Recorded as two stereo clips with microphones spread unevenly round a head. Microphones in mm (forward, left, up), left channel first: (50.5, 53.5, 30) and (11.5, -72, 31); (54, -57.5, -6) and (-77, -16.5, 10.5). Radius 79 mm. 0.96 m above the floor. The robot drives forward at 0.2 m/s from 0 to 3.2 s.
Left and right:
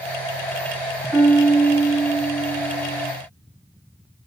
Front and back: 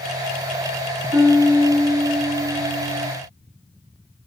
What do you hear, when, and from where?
1.1 s a piano: 175° right, 0.9 m